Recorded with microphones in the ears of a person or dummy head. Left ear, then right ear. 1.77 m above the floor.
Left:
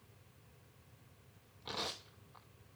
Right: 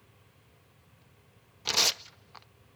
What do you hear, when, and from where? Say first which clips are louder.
1.6 s tearing paper: right 15 dB; 70° right (ahead or behind), 0.6 m